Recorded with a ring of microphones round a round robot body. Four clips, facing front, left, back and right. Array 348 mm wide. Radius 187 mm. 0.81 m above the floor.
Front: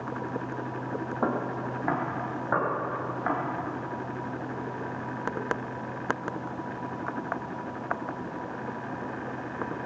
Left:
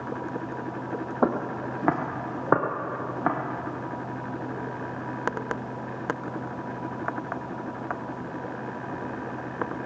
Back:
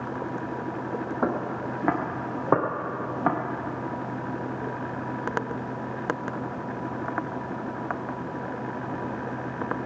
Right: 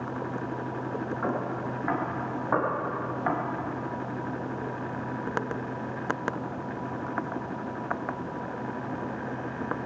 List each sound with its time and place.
1.2 s footsteps: 95° left, 1.8 m; by 3.4 s 145° left, 3 m